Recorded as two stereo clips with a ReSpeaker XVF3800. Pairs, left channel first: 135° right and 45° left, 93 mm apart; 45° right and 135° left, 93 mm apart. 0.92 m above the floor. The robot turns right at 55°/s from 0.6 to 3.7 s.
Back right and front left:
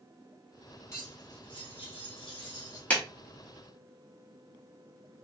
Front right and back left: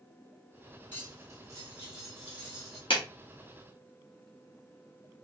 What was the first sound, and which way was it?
Cutlery clinking, 160° left.